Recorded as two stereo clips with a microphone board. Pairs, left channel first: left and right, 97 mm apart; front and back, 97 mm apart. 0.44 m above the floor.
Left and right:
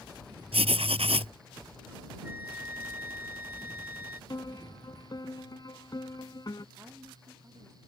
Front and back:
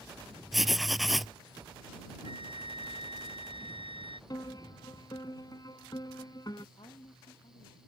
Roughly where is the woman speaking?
Ahead right.